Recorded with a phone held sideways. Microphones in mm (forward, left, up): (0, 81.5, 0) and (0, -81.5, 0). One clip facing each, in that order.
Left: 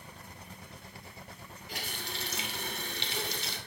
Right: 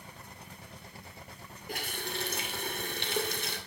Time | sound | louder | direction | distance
1.7 | a running tap | right 4 dB | 50° right (ahead or behind) | 2.5 m